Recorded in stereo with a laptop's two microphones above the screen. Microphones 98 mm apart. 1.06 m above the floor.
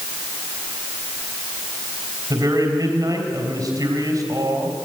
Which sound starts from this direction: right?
A man speaking, at 2.3 s.